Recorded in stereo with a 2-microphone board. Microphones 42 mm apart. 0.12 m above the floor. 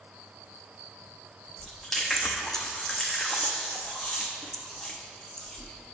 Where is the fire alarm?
No fire alarm in this recording.